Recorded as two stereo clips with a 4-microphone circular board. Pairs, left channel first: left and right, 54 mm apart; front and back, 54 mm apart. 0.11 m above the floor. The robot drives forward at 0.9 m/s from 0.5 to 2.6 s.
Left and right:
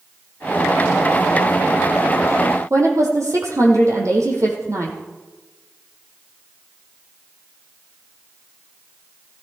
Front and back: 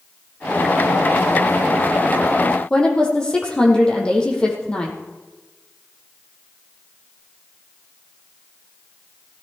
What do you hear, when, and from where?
2.7 s a woman speaking: 75° right, 3.5 m